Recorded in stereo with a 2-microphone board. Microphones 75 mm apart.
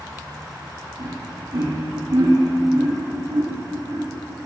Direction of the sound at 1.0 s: 80° right.